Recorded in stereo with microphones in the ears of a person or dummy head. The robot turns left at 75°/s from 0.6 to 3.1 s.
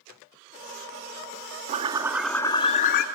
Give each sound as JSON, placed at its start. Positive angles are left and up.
{"t": 1.7, "sound": "a bird", "azimuth_deg": -135, "distance_m": 1.1}